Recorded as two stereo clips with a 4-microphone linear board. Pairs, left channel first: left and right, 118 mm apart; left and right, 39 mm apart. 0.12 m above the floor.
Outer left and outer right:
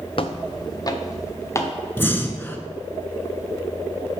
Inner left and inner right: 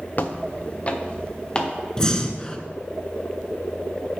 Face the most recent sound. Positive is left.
turn(degrees=20)  # may be behind; listen again after turning